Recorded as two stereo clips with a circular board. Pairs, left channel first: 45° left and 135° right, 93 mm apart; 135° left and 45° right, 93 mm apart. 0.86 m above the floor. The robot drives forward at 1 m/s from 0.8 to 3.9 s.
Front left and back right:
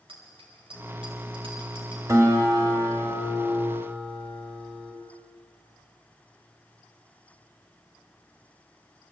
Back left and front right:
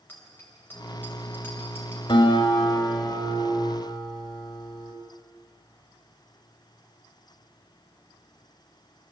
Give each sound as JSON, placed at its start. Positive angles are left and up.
{"t": 0.1, "sound": "a bicycle bell", "azimuth_deg": -155, "distance_m": 3.0}
{"t": 2.1, "sound": "a guitar", "azimuth_deg": 170, "distance_m": 1.9}